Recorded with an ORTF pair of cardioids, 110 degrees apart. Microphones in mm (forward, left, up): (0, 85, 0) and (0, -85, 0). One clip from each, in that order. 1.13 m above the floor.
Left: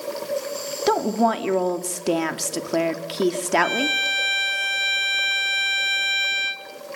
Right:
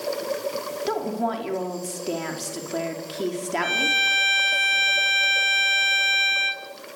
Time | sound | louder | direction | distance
0.9 | a woman speaking | left 7 dB | 45° left | 3 m
3.6 | a violin | right 1 dB | 5° right | 3.5 m